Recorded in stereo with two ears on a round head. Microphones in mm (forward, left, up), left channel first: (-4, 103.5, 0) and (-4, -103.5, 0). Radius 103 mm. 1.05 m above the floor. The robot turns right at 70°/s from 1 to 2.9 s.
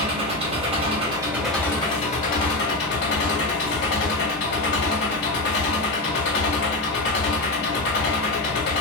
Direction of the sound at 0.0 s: 35° right.